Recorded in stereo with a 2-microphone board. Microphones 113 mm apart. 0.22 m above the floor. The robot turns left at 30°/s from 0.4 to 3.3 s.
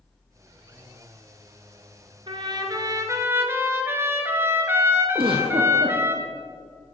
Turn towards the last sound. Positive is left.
turn(degrees=-50)  # may be behind; listen again after turning